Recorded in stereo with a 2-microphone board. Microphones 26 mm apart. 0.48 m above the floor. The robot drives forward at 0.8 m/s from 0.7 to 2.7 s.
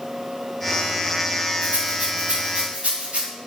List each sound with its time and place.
1.6 s a rattle: 75° right (ahead or behind), 3 m; by 3.2 s 70° right (ahead or behind), 3 m